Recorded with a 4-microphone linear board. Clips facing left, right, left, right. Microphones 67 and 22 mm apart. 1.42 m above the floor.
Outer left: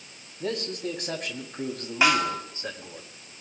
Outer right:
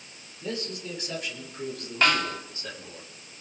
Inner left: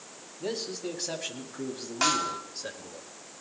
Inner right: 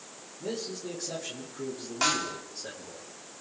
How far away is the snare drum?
About 1.4 m.